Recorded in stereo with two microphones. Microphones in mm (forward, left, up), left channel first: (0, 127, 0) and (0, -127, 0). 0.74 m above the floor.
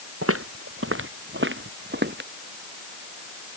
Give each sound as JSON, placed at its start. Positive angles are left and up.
{"t": 0.2, "sound": "footsteps", "side_deg": -60}